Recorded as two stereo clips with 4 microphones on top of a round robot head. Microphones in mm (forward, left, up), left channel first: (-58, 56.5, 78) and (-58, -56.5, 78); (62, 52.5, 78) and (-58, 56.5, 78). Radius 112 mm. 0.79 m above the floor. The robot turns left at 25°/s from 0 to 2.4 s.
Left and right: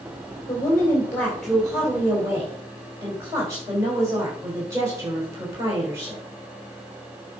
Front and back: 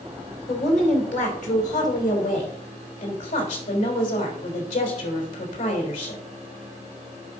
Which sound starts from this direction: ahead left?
A woman speaking, at 0.5 s.